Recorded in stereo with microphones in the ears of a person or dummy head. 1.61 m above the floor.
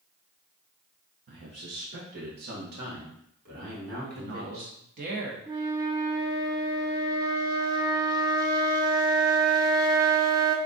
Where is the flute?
20° right (ahead or behind), 0.6 m.